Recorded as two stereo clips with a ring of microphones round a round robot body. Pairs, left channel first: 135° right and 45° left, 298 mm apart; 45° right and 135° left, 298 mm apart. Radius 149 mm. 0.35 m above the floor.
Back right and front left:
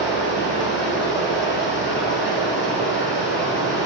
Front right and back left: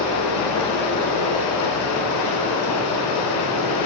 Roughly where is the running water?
Right.